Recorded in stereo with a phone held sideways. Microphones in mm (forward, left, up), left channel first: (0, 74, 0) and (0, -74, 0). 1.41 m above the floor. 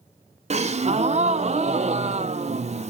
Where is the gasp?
50° right (ahead or behind), 0.5 m.